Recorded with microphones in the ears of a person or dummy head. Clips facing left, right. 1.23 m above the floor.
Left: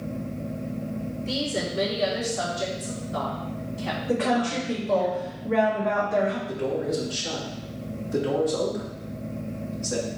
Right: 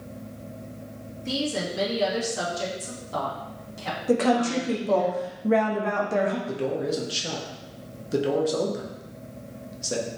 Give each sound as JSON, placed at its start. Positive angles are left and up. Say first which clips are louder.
{"t": 1.2, "sound": "a woman speaking", "louder": "right 2 dB", "side_deg": -70, "distance_m": 2.5}
{"t": 4.1, "sound": "a woman speaking", "louder": "right 3 dB", "side_deg": -55, "distance_m": 1.1}
{"t": 6.5, "sound": "a man speaking", "louder": "even", "side_deg": -45, "distance_m": 1.3}